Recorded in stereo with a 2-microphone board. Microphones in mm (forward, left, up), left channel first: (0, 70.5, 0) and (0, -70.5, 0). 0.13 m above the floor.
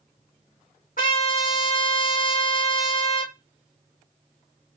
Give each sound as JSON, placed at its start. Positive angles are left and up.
{"t": 1.0, "sound": "a trumpet", "side_deg": 80, "distance_m": 3.0}